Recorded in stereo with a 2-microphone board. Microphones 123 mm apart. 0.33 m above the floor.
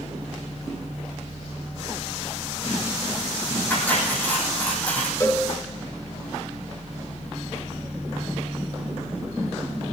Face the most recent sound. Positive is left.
turn(degrees=25)  # may be behind; listen again after turning